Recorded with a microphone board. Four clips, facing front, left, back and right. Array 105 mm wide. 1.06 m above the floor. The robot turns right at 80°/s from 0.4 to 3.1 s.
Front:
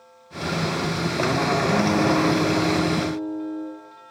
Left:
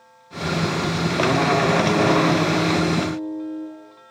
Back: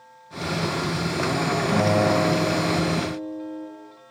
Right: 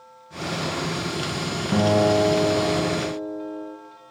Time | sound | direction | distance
1.7 | a guitar | 120° right | 8 m